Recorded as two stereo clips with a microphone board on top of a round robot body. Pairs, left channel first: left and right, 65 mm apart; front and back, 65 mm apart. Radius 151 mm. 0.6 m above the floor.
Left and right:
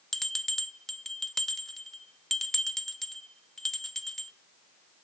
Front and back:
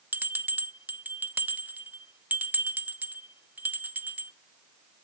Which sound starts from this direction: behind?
A bell, at 0.1 s.